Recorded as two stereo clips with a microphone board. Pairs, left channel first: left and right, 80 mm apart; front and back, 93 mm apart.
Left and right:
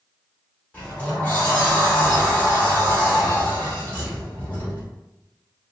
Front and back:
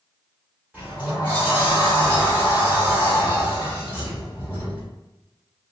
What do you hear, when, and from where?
0.7 s a sliding door: 120° left, 1.4 m